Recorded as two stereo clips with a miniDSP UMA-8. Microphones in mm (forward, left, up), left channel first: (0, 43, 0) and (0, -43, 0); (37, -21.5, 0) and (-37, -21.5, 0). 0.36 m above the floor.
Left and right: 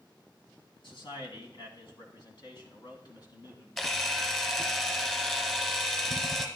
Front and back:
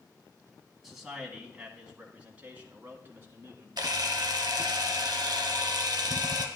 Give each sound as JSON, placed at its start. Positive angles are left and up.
{"t": 0.8, "sound": "a man speaking", "azimuth_deg": 95, "distance_m": 2.5}
{"t": 3.8, "sound": "a camera shutter", "azimuth_deg": 175, "distance_m": 1.7}